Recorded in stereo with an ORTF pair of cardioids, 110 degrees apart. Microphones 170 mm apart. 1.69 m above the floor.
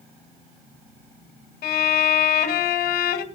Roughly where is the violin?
Ahead left.